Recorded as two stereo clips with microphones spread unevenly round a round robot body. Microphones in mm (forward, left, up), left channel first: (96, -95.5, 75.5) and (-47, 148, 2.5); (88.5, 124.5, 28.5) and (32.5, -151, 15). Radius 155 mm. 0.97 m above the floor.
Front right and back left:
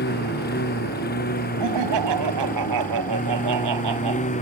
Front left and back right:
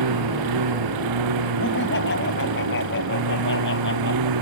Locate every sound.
0.0 s a lawn mower: 120° right; by 4.4 s 125° right
1.6 s laughter: 135° left